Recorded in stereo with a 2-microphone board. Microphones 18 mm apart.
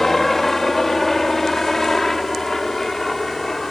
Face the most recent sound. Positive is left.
turn(degrees=20)  # may be behind; listen again after turning